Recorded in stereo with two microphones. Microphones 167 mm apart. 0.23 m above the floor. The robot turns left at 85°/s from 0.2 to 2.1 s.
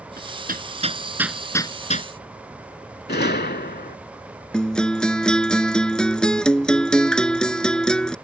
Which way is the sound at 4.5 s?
5° left (ahead or behind).